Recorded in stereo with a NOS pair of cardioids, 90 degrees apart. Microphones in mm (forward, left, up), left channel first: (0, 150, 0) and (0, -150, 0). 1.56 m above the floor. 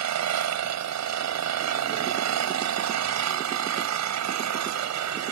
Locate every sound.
0.0 s an engine running: 65° right